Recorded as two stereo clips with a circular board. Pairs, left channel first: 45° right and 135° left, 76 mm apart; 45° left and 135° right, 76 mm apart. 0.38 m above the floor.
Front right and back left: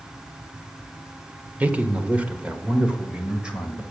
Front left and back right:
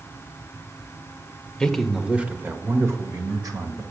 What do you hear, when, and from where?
1.6 s a man speaking: 115° left, 0.9 m; by 3.8 s 150° right, 1.5 m